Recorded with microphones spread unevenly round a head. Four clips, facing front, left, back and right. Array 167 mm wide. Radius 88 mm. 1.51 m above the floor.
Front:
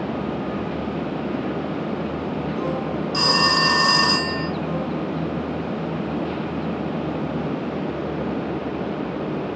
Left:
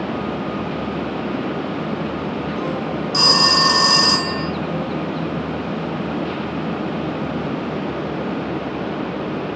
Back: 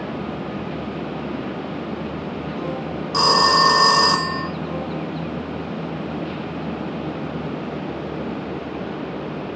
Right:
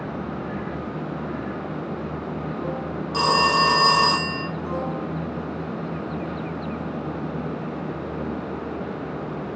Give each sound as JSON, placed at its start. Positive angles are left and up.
{"t": 3.1, "sound": "a phone ringing", "azimuth_deg": -170, "distance_m": 0.6}